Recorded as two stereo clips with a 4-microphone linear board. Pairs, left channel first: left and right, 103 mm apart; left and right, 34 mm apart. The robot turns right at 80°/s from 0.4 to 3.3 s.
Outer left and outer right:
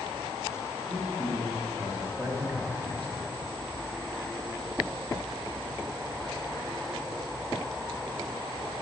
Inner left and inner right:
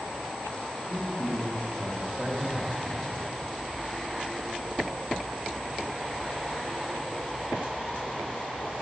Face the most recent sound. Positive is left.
turn(degrees=45)